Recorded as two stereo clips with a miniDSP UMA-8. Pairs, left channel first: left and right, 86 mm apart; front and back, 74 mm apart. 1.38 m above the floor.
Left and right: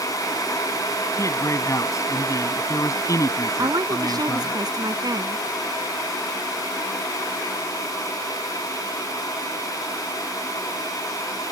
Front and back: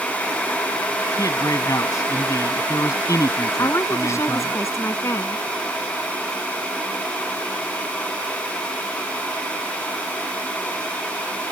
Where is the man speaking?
40° left.